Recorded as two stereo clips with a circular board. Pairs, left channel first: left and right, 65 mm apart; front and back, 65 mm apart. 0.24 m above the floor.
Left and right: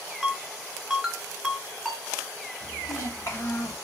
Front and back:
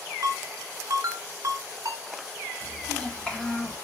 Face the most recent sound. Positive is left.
turn(degrees=70)